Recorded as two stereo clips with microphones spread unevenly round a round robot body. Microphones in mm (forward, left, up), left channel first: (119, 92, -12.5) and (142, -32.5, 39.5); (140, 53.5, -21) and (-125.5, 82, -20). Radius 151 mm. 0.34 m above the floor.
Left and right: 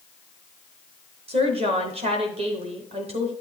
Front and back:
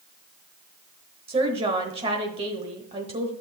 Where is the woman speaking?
130° right, 1.0 m.